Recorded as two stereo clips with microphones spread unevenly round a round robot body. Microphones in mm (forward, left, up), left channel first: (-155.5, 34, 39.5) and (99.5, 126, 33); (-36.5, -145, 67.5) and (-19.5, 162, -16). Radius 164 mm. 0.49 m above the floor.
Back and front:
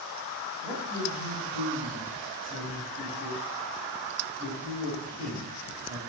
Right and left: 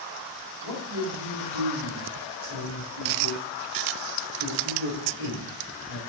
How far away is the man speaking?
About 3 m.